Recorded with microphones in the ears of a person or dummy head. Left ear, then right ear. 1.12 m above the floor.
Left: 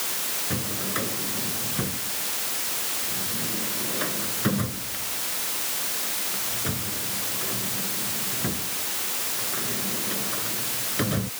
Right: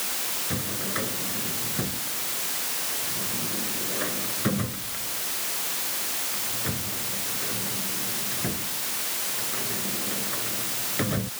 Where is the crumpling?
No crumpling in this recording.